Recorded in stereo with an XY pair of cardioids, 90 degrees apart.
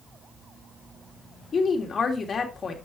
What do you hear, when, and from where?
1.5 s a woman speaking: 50° left, 3 m